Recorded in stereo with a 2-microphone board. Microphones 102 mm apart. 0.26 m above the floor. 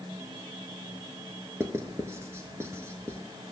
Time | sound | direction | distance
1.6 | writing | 25° right (ahead or behind) | 1.0 m